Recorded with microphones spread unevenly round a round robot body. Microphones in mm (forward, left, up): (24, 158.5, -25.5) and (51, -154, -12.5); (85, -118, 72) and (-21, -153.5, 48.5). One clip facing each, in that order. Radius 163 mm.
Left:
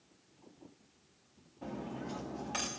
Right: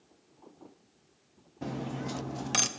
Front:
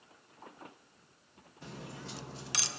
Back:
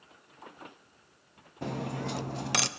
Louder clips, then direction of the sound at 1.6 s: Right 5 dB, back 12 dB; 125° right.